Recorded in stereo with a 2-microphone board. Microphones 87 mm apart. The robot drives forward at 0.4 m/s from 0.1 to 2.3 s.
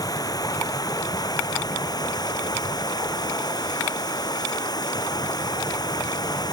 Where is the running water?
45° left (ahead or behind); by 6.5 s 50° left (ahead or behind).